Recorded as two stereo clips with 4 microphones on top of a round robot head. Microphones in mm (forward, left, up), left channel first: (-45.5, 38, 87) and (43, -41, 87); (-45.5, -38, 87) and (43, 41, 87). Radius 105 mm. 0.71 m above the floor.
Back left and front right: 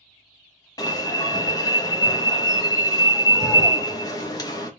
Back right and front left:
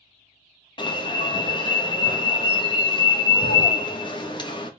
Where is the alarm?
175° right, 1.0 m.